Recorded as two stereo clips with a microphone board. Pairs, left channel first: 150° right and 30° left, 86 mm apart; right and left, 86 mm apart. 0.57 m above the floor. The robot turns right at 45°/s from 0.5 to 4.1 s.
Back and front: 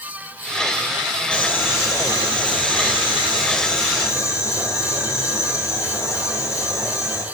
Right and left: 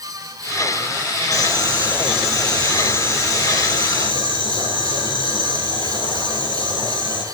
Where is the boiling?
135° left, 8 m; by 7.2 s 100° right, 8 m.